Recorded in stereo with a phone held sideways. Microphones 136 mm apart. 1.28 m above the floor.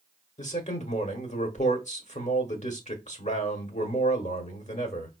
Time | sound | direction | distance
0.4 | a man speaking | 60° left (ahead or behind) | 1.1 m